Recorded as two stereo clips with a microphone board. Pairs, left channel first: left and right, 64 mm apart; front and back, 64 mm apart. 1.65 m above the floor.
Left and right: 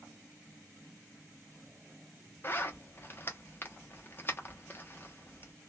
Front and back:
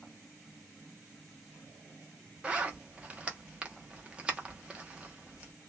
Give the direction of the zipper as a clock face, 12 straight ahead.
8 o'clock.